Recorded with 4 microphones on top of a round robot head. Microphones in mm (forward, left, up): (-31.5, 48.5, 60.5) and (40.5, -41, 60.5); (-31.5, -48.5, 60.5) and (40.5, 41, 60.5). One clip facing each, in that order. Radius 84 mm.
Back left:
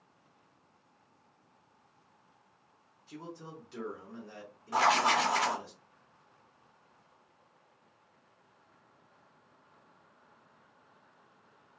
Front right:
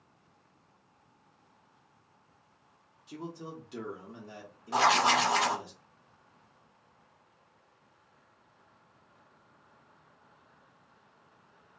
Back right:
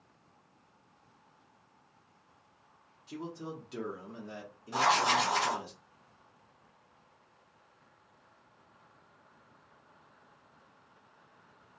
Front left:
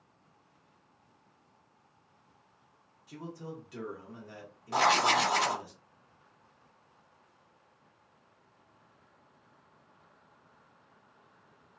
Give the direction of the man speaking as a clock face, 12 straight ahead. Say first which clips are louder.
Front right 4 dB, back right 2 dB; 3 o'clock.